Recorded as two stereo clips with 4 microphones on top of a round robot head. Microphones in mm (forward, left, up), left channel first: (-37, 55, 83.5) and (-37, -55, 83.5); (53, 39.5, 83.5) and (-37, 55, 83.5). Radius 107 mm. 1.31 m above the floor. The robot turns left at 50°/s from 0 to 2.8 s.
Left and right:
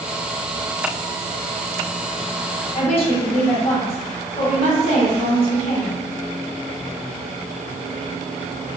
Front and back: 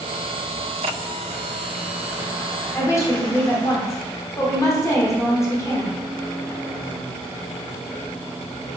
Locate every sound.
2.7 s a woman speaking: 55° left, 0.8 m; by 6.0 s 50° left, 0.8 m